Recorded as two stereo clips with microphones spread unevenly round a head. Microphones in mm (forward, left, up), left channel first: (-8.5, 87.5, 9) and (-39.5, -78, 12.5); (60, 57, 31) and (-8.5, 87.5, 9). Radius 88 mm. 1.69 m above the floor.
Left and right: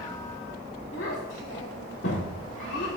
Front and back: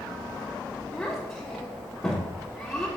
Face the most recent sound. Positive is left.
turn(degrees=45)